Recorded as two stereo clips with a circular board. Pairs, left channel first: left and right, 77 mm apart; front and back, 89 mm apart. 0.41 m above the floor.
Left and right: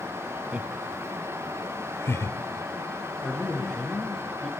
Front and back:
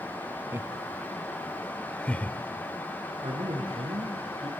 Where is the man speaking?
170° left, 5.5 m.